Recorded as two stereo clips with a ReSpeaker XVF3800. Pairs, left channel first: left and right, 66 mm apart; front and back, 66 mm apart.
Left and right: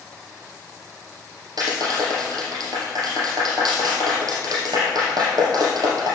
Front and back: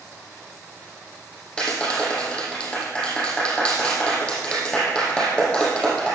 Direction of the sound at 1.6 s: 80° right.